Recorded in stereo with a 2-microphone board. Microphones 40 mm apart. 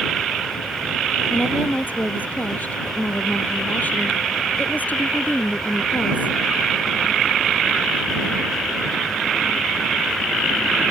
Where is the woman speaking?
45° left (ahead or behind).